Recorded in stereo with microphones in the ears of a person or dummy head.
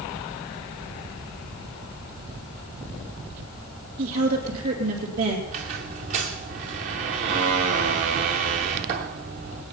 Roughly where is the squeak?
Right.